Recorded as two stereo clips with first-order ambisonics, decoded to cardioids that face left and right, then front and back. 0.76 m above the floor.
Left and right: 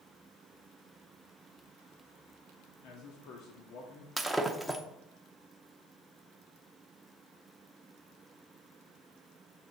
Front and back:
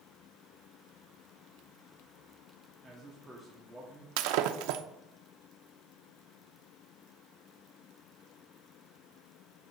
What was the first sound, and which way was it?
A man speaking, 100° left.